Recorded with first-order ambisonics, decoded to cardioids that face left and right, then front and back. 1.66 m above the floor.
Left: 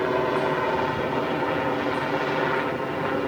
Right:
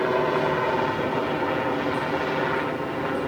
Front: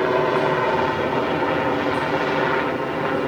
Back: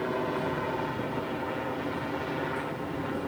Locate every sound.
0.0 s a helicopter: 5° right; by 3.3 s 10° left